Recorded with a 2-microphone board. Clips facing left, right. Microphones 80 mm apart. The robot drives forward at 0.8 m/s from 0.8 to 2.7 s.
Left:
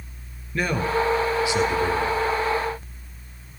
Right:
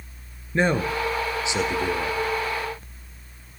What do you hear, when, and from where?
0.5 s a man speaking: 25° right (ahead or behind), 2 m; by 2.2 s 15° right (ahead or behind), 3 m